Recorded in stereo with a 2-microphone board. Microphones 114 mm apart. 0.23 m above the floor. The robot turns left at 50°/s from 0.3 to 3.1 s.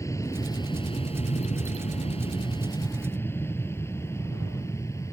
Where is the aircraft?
25° left (ahead or behind).